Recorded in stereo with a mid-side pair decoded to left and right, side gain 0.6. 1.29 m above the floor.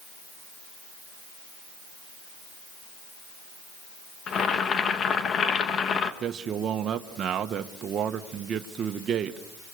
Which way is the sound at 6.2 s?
45° right.